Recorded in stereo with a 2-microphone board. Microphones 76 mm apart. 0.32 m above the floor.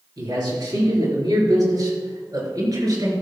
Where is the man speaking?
70° right (ahead or behind), 6 m; by 3.1 s 60° right (ahead or behind), 5.5 m.